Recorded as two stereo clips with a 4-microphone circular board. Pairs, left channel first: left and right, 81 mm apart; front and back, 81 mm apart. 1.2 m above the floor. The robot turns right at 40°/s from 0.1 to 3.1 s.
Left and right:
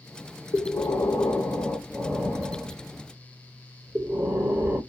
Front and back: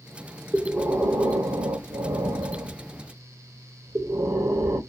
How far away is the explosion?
I don't hear an explosion.